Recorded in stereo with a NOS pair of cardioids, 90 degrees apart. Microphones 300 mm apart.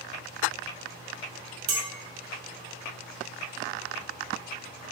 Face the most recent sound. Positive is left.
turn(degrees=-65)